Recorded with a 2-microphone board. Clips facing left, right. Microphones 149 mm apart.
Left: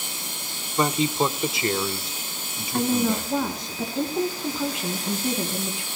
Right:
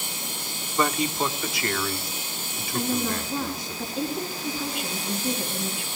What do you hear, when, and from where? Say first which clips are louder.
0.8 s a man speaking: left 3 dB; 20° left (ahead or behind), 1.0 m
2.7 s a woman speaking: left 4 dB; 75° left (ahead or behind), 4.5 m